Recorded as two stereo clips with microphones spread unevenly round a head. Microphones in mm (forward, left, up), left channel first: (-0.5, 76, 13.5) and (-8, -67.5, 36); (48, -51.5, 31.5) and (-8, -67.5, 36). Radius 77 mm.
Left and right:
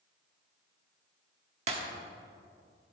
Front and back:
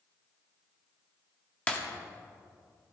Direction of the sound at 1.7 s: 50° right.